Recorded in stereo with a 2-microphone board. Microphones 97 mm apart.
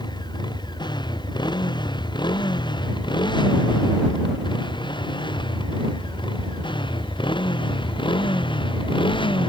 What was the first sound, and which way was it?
A motorcycle, 50° left (ahead or behind).